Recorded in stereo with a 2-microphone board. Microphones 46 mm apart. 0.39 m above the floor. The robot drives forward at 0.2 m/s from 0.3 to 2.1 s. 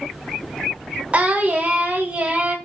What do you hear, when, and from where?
1.1 s singing: 30° right (ahead or behind), 1.1 m